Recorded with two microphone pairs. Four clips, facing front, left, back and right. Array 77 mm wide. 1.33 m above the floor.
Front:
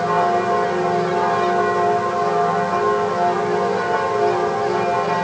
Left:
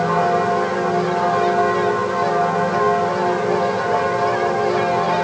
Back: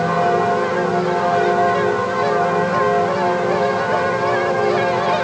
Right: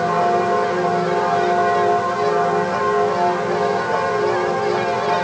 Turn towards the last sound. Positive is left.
No sound to turn to.